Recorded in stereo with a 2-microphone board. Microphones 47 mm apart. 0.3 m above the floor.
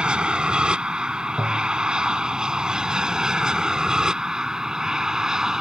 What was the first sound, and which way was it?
An aircraft, 20° right (ahead or behind).